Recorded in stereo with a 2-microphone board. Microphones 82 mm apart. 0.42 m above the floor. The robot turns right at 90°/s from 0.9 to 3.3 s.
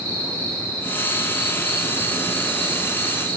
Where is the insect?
25° left, 4 m; by 3.4 s 120° right, 4 m.